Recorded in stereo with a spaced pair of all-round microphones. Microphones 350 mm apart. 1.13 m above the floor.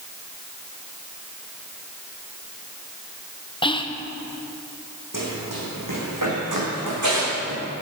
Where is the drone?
I don't hear a drone.